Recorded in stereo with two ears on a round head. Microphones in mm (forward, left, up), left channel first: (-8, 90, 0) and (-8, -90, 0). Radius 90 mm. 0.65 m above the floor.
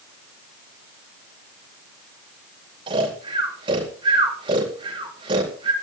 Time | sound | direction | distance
2.9 | snoring | 25° right (ahead or behind) | 4.5 m